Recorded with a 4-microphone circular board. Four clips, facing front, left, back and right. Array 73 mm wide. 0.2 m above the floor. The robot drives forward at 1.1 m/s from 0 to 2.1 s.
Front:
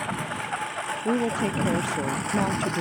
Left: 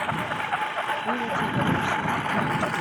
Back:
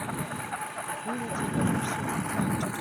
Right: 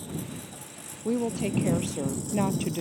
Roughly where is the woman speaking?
Ahead.